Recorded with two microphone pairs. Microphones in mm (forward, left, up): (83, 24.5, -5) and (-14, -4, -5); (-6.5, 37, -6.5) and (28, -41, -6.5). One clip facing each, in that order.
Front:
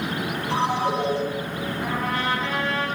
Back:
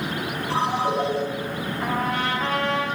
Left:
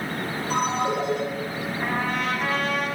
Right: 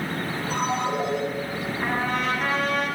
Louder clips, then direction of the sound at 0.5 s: Even, left 2 dB; 140° left.